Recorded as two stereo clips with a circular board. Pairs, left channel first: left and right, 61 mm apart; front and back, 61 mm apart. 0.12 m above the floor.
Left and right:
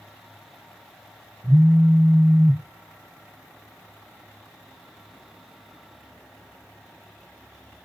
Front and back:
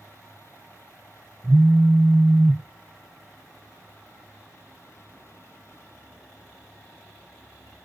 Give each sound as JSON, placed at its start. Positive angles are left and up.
{"t": 1.4, "sound": "a phone buzzing", "azimuth_deg": -100, "distance_m": 1.3}